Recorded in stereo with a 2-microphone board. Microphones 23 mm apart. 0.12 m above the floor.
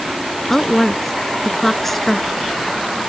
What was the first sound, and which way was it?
A woman speaking, 10° left (ahead or behind).